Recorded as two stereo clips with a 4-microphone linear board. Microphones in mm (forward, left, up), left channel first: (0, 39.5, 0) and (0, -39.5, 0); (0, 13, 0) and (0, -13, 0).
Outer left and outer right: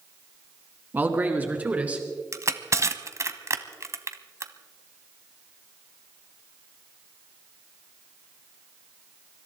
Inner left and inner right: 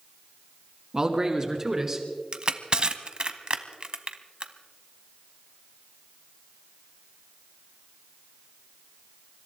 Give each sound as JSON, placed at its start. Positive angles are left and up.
{"t": 0.9, "sound": "a man speaking", "side_deg": -25, "distance_m": 2.5}
{"t": 2.3, "sound": "crushing", "side_deg": -40, "distance_m": 1.1}